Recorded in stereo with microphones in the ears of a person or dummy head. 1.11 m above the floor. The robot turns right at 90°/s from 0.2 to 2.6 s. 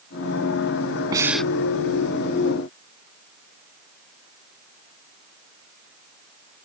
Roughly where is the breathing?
Ahead.